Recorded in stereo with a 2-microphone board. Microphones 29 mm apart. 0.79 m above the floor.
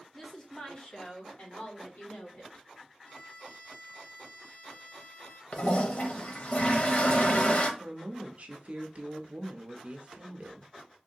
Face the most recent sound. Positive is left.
turn(degrees=-50)  # may be behind; listen again after turning